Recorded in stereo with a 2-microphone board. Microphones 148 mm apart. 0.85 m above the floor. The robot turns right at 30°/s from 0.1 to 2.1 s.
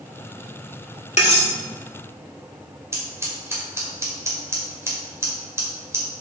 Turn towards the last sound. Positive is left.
turn(degrees=-20)  # may be behind; listen again after turning